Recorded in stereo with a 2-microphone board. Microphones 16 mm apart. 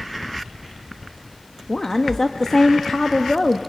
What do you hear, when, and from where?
1.7 s a woman speaking: 35° left (ahead or behind), 0.8 m